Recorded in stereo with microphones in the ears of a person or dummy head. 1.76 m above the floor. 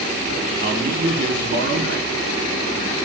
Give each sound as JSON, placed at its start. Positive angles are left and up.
{"t": 0.6, "sound": "a man speaking", "side_deg": -60, "distance_m": 4.5}